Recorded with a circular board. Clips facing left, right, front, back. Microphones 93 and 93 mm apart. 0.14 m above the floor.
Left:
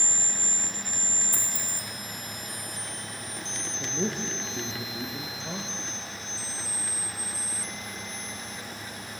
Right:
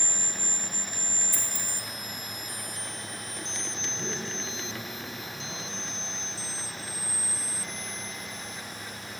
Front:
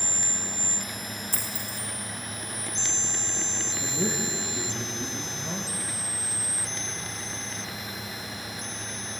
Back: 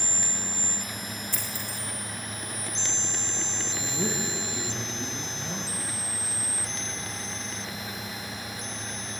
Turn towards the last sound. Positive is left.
turn(degrees=85)